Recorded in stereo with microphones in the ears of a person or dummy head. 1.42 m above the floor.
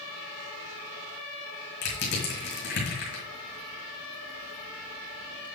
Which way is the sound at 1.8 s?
55° left (ahead or behind).